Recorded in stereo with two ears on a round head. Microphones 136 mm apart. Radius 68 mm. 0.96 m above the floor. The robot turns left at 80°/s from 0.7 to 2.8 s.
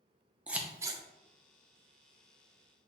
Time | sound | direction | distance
0.5 | scissors | 10° right (ahead or behind) | 0.5 m